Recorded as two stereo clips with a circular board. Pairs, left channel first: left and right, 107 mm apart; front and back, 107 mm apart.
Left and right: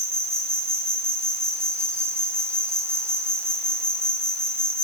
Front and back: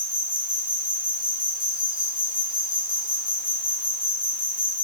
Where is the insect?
150° right, 2 m.